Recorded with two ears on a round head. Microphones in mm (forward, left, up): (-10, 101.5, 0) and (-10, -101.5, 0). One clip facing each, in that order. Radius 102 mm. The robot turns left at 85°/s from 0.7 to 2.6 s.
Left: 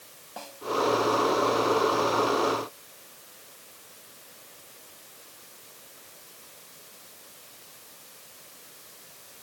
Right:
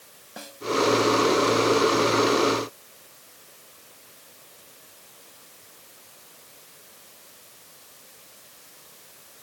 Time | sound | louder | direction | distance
0.4 | a snare drum | right 1 dB | 20° right (ahead or behind) | ?